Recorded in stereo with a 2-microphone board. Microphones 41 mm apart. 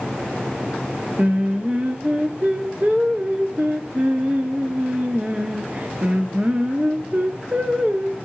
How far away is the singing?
About 1.1 m.